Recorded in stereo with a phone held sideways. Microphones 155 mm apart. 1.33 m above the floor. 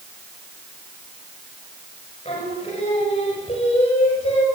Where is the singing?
35° left (ahead or behind), 6.5 m.